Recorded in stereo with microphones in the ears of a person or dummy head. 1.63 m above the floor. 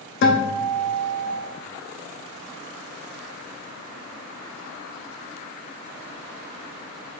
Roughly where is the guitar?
Left.